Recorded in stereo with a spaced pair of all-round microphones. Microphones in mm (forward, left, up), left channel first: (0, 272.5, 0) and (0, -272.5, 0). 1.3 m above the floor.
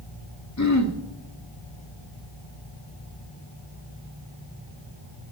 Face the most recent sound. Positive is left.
turn(degrees=30)  # may be behind; listen again after turning